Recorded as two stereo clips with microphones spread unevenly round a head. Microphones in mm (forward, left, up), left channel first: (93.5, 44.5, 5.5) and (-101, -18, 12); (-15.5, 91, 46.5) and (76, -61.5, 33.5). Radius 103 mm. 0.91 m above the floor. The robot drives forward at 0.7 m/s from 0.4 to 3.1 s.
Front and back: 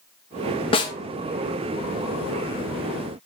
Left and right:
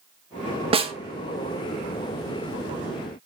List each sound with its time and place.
0.7 s a snare drum: 30° right, 1.1 m; by 0.9 s 40° right, 1.0 m